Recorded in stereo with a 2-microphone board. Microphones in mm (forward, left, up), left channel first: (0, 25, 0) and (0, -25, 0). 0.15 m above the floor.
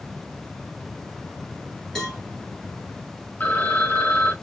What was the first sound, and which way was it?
A cowbell, 10° left (ahead or behind).